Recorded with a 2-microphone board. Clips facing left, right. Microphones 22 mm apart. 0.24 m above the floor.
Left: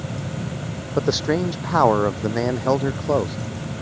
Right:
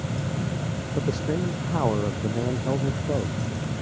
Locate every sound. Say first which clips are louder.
1.0 s a man speaking: left 7 dB; 80° left; by 3.4 s 70° left (ahead or behind)